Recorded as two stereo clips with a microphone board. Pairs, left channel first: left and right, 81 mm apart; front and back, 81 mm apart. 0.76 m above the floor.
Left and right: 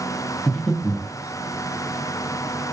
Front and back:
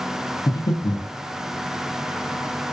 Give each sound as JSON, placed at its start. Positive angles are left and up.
{"t": 0.5, "sound": "breathing", "azimuth_deg": 10, "distance_m": 0.5}